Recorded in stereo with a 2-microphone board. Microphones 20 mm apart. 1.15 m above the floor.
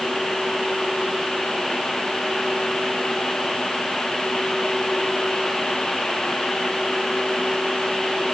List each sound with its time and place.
Only background noise.